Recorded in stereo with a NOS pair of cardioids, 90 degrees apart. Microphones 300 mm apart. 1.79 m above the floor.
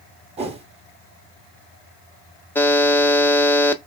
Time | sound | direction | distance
0.4 | a whoosh | 20° right | 0.9 m
2.5 | a buzzer | 5° left | 0.6 m